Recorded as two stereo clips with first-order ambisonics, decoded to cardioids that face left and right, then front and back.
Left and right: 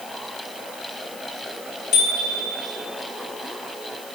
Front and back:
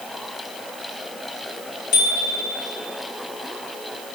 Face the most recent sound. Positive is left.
turn(degrees=40)